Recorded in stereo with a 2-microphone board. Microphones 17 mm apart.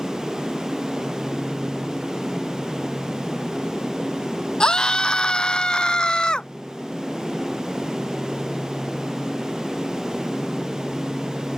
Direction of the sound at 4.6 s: 45° left (ahead or behind).